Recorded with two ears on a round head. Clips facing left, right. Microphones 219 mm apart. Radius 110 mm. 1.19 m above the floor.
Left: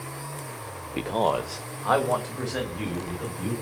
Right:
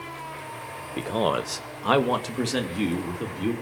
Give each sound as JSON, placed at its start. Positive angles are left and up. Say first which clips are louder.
{"t": 1.0, "sound": "a man speaking", "louder": "even", "side_deg": 10, "distance_m": 0.7}